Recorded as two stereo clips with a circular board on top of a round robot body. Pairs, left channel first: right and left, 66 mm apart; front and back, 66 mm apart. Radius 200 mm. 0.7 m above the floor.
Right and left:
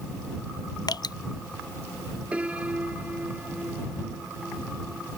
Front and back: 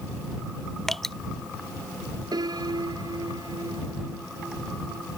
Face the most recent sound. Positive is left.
turn(degrees=160)